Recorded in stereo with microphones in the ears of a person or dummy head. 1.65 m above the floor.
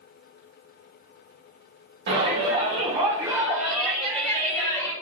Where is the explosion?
I don't hear an explosion.